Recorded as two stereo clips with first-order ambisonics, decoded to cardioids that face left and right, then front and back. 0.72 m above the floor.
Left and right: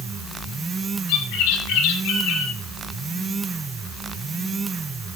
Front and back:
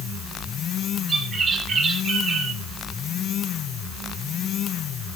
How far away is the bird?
About 8.5 m.